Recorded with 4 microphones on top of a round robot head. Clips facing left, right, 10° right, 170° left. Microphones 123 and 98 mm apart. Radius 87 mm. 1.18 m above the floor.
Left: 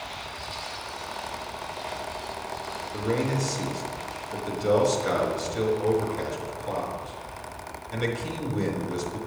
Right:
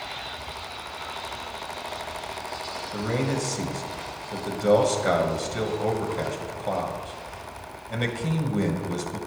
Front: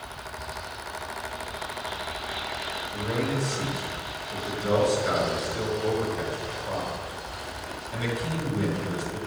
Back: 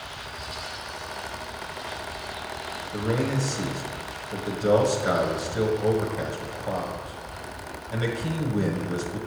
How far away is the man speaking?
About 1.4 m.